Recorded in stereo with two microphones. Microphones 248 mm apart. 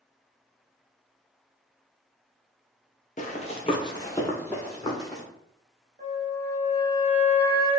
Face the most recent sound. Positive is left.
turn(degrees=-40)  # may be behind; listen again after turning